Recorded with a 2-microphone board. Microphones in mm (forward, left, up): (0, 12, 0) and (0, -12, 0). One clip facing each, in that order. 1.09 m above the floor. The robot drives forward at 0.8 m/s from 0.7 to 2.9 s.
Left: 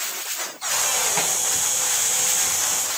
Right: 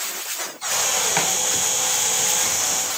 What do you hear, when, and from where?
1.2 s chopping: 85° right, 6.5 m